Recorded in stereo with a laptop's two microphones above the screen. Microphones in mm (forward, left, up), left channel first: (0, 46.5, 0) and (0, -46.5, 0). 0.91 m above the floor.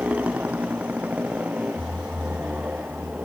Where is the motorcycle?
15° right (ahead or behind).